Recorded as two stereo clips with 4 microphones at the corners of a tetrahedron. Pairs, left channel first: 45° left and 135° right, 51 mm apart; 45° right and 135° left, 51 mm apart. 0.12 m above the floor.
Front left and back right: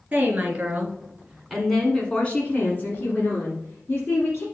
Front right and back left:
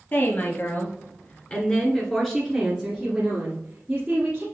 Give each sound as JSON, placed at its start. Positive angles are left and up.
{"t": 0.1, "sound": "a woman speaking", "azimuth_deg": -80, "distance_m": 2.5}